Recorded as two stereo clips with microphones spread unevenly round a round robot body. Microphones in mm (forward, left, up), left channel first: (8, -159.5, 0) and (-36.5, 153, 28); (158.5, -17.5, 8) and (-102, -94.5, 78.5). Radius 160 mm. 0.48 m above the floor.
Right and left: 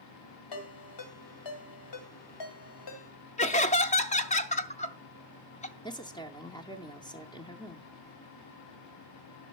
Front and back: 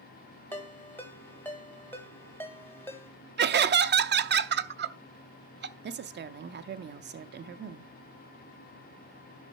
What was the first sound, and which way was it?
A ringtone, 60° right.